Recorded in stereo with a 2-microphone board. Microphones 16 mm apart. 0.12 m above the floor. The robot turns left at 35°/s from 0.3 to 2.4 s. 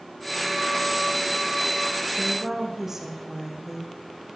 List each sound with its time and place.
2.2 s a woman speaking: 20° right (ahead or behind), 6.5 m; by 3.9 s 25° right (ahead or behind), 6.5 m